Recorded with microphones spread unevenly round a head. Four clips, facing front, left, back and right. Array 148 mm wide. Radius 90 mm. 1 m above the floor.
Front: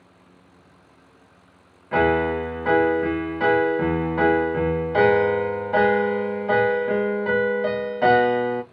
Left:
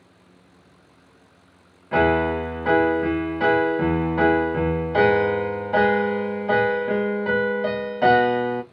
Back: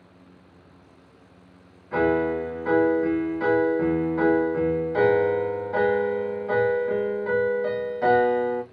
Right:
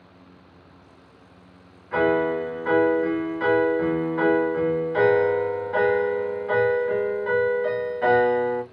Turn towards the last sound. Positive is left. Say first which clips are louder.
# left 2 dB, front 2 dB
turn(degrees=40)